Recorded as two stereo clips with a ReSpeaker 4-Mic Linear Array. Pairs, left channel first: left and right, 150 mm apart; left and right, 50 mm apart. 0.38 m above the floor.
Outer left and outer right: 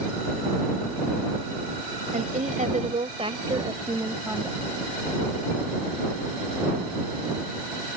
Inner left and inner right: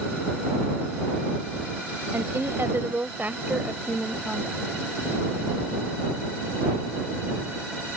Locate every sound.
2.1 s a woman speaking: 55° right (ahead or behind); by 4.6 s 10° right (ahead or behind)